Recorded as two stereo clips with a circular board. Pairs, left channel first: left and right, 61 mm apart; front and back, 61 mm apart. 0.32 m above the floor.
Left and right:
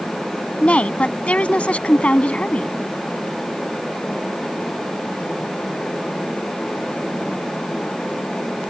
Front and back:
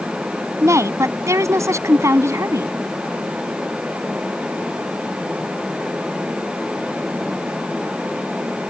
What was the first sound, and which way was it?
A woman speaking, 155° left.